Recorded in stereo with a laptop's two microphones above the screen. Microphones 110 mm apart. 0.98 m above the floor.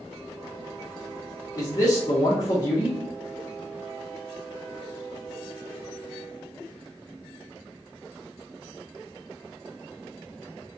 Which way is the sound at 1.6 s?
30° left (ahead or behind).